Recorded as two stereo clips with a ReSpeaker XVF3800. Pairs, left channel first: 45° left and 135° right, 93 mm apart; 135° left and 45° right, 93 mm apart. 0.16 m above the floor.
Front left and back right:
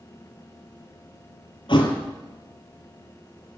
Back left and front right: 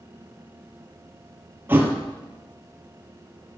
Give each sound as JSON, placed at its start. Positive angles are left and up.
{"t": 1.7, "sound": "a thud", "azimuth_deg": 25, "distance_m": 2.0}